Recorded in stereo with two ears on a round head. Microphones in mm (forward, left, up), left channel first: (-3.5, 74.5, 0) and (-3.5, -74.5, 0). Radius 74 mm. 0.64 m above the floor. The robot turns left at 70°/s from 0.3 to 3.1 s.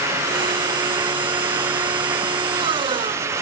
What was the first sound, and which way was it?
Only background noise.